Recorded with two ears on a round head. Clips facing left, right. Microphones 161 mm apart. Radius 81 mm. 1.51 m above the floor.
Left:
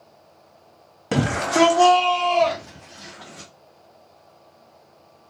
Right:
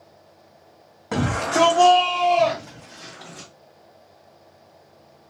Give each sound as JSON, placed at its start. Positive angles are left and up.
{"t": 1.1, "sound": "a shout", "side_deg": 30, "distance_m": 0.6}